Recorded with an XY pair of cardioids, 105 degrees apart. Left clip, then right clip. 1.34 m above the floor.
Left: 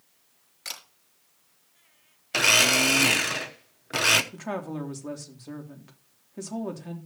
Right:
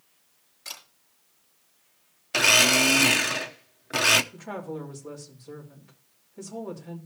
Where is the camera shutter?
50° left, 5 m.